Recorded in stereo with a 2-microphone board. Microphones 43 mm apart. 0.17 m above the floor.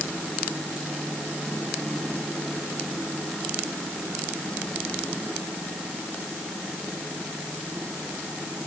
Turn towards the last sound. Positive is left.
No sound to turn to.